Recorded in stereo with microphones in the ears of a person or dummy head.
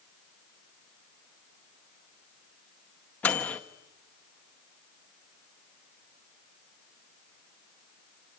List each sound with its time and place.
3.2 s a microwave: 10° left (ahead or behind), 0.7 m